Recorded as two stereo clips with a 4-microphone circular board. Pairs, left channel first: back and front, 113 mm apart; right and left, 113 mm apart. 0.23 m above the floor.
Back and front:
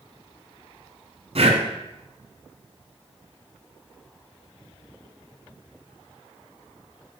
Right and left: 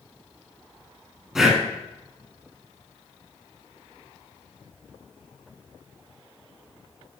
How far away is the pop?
No pop in this recording.